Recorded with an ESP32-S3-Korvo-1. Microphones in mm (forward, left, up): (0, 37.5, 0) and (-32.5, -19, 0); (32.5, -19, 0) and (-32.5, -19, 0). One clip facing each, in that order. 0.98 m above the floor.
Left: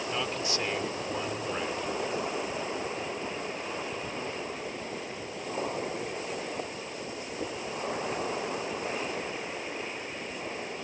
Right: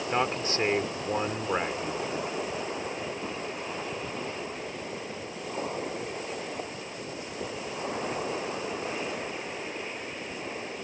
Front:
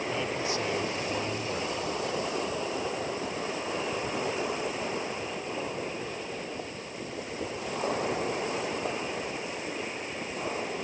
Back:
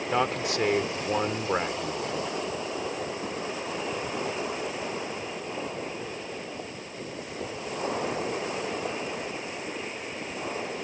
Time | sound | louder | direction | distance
0.1 | a man speaking | right 6 dB, back 8 dB | 170° right | ?